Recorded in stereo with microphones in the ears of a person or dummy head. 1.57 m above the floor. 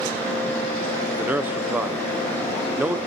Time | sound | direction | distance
1.2 | a man speaking | 5° right (ahead or behind) | 0.6 m